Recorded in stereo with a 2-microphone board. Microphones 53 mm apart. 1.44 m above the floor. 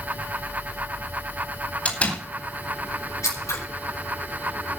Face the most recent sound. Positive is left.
turn(degrees=85)